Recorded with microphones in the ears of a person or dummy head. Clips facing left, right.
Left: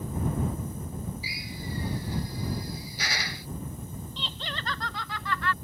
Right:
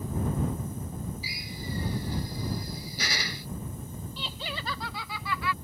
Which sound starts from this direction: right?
A drill, at 1.2 s.